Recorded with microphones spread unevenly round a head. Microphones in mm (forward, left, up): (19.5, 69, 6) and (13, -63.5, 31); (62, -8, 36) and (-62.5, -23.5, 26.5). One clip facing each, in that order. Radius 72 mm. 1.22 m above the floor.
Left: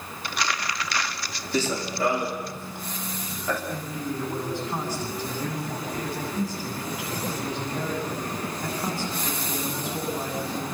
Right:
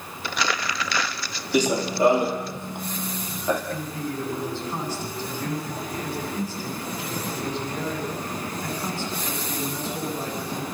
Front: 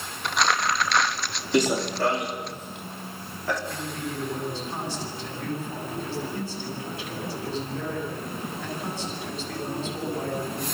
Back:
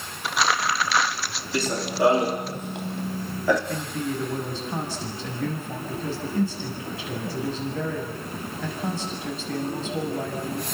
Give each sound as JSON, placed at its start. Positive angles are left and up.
{"t": 0.2, "sound": "crumpling", "azimuth_deg": -85, "distance_m": 1.0}
{"t": 1.5, "sound": "running footsteps", "azimuth_deg": -45, "distance_m": 1.4}
{"t": 3.7, "sound": "a man speaking", "azimuth_deg": 165, "distance_m": 8.5}